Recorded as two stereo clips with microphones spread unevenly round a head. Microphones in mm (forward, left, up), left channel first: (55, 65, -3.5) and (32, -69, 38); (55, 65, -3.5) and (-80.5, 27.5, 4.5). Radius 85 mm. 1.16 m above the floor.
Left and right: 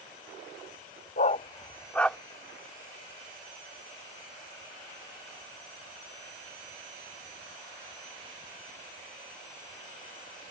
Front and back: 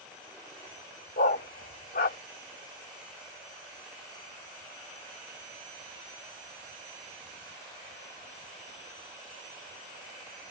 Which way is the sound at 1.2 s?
40° left.